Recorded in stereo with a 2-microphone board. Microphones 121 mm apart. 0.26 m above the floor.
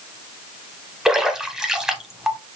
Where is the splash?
5° right (ahead or behind), 0.7 m.